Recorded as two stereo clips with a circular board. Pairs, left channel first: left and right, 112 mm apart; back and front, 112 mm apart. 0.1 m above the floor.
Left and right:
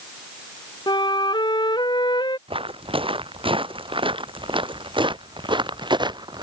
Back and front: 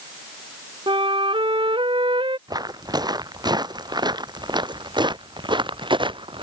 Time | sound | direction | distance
0.9 | a flute | 40° left | ?
2.5 | footsteps | 55° right | ?